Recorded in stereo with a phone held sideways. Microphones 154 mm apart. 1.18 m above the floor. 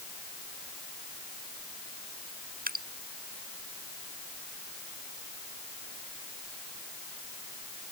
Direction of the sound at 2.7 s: 75° right (ahead or behind).